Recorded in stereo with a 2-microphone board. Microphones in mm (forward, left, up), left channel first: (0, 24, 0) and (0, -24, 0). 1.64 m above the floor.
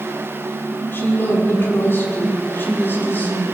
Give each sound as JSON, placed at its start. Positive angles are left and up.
{"t": 0.9, "sound": "a woman speaking", "side_deg": 50, "distance_m": 6.5}